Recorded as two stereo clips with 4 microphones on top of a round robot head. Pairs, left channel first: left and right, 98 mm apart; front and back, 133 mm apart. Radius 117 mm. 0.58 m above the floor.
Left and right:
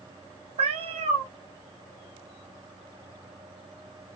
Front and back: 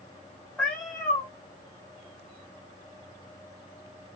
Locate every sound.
0.6 s a cat meowing: 85° right, 0.9 m